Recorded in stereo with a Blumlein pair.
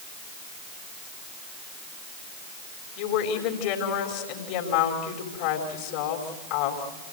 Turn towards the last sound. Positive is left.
turn(degrees=40)